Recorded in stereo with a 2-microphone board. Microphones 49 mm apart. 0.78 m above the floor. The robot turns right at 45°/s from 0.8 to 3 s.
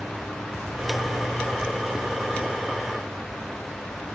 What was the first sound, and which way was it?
Only background noise.